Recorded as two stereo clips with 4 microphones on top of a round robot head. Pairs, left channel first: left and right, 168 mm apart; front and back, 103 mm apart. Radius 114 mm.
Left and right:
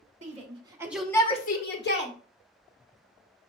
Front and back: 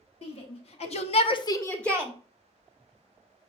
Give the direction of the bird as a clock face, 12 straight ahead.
No bird in this recording.